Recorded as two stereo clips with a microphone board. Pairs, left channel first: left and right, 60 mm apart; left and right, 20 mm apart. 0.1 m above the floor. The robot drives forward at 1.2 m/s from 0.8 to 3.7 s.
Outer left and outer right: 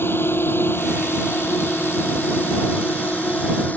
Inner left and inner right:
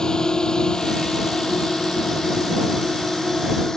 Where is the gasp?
No gasp in this recording.